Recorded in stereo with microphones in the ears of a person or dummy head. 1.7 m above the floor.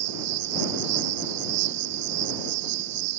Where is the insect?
60° right (ahead or behind).